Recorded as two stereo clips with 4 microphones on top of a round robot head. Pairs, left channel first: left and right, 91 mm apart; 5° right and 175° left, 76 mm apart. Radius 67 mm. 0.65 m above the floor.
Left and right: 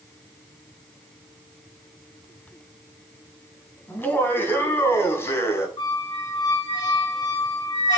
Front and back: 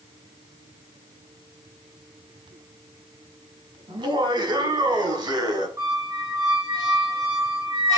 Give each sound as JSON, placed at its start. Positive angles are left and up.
{"t": 3.9, "sound": "laughter", "azimuth_deg": 155, "distance_m": 5.0}
{"t": 5.8, "sound": "a squeak", "azimuth_deg": 135, "distance_m": 5.0}